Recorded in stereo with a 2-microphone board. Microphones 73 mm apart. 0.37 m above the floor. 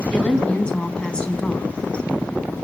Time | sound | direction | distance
0.1 | a woman speaking | 10° left (ahead or behind) | 3.5 m